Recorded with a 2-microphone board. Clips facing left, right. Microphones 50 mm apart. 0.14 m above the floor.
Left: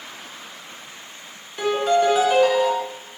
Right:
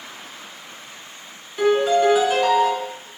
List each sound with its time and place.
1.6 s a piano: centre (ahead or behind), 0.6 m